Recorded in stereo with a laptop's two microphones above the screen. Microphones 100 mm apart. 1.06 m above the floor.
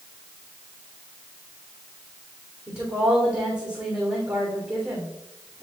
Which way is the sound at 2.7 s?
25° right (ahead or behind).